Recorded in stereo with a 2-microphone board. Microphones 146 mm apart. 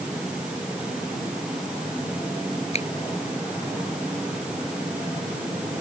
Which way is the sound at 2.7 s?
45° left (ahead or behind).